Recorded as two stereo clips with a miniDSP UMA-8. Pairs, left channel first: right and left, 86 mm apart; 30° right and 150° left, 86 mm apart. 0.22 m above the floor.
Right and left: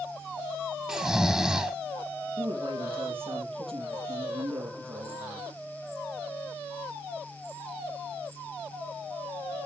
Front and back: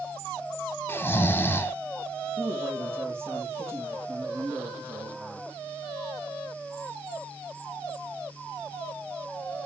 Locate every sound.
0.9 s snoring: 10° left, 1.1 m
2.4 s a man speaking: 85° left, 6.5 m